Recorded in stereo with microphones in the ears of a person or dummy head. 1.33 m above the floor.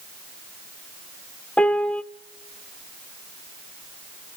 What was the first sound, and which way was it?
A piano, 10° left (ahead or behind).